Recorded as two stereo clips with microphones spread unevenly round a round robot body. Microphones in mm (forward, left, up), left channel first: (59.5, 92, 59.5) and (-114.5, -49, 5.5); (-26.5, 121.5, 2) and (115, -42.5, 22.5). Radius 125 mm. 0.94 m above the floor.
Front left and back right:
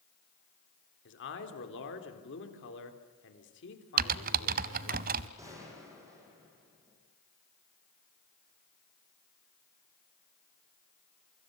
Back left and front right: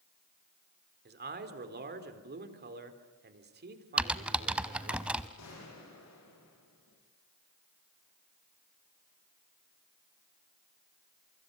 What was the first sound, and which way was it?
A man speaking, 5° right.